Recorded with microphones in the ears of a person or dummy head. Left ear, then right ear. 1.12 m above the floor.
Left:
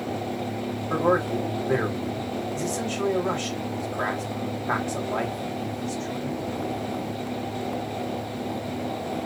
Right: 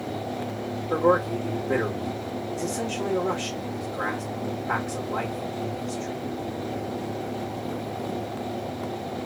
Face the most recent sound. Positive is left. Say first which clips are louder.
# right 1 dB
turn(degrees=40)  # may be behind; listen again after turning